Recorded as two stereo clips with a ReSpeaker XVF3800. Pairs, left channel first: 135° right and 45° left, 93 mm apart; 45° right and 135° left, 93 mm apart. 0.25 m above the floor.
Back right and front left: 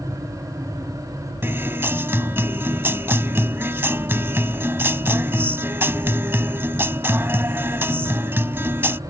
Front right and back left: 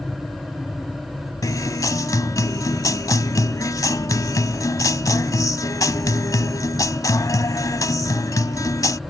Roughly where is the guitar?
Ahead.